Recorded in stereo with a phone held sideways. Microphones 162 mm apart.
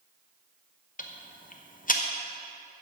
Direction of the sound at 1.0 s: 55° left (ahead or behind).